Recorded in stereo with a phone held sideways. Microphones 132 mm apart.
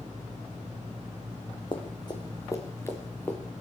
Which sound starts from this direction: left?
Running footsteps, at 1.7 s.